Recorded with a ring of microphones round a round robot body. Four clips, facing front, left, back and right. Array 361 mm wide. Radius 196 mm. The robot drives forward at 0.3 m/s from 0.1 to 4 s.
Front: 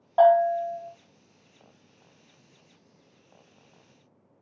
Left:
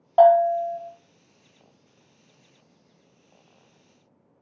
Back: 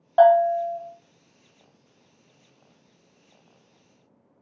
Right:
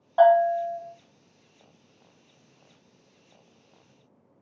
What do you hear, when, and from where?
0.2 s a bell: 125° left, 1.1 m; by 0.8 s 130° left, 1.2 m